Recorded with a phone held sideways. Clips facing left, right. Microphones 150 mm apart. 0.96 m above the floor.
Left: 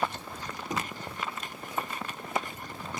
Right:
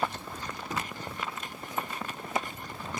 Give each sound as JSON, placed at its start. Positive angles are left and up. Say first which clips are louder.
{"t": 0.7, "sound": "knocking", "louder": "left 2 dB", "side_deg": 15}